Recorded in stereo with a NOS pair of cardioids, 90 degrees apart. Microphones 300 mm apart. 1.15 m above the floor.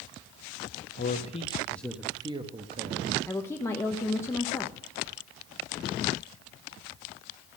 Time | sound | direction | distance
1.0 | a man speaking | 30° left | 1.3 m
3.3 | a woman speaking | 10° left | 1.0 m